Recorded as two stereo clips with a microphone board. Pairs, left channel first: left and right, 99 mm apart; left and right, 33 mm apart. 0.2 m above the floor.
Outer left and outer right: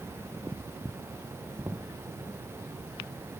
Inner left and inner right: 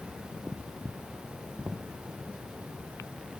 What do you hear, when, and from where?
1.6 s knocking: 20° right (ahead or behind)